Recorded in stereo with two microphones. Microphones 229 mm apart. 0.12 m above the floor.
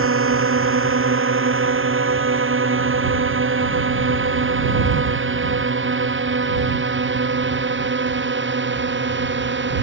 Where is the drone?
65° right (ahead or behind); by 9.8 s 55° right (ahead or behind).